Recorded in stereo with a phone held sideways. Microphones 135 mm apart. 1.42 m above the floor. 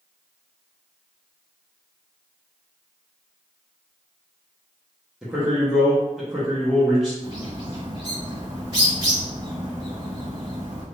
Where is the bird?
30° right (ahead or behind), 1.8 m.